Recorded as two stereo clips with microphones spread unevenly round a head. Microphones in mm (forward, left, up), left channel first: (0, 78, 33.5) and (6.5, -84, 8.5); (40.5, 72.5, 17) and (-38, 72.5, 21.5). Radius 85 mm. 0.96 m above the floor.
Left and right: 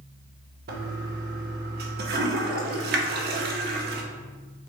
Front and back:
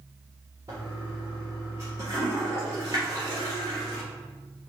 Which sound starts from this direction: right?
A toilet flushing, at 0.7 s.